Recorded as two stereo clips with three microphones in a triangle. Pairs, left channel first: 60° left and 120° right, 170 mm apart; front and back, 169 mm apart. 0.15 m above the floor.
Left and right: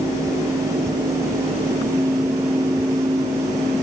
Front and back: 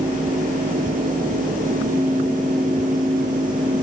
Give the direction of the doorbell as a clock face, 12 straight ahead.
No doorbell in this recording.